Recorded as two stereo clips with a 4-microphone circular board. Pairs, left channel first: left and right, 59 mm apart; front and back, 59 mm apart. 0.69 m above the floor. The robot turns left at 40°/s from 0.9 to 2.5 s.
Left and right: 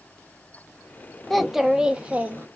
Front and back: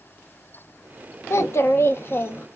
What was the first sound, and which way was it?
A child speaking, 5° left.